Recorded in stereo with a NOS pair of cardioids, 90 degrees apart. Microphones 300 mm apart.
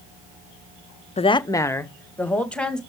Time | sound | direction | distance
1.2 | a woman speaking | 20° left | 0.6 m